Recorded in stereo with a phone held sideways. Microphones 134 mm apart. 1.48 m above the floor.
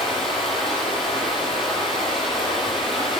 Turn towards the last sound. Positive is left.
turn(degrees=0)  # may be behind; listen again after turning